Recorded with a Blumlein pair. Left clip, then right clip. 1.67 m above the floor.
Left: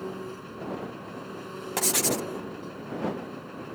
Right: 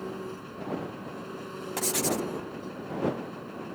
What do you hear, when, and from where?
0.0 s an engine running: 5° left
1.8 s writing: 15° left